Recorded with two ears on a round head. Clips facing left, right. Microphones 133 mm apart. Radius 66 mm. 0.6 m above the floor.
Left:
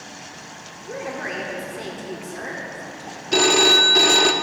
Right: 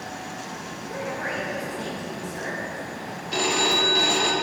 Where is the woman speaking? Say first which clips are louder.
Left 1 dB; 50° left (ahead or behind), 1.4 m.